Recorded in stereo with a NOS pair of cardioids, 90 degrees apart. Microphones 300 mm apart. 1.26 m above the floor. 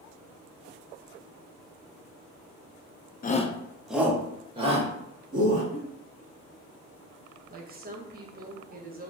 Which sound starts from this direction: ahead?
A giggle, at 5.7 s.